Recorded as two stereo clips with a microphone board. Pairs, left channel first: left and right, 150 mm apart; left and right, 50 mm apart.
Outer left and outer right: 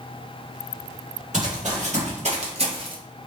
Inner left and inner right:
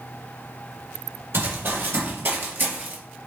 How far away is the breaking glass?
No breaking glass in this recording.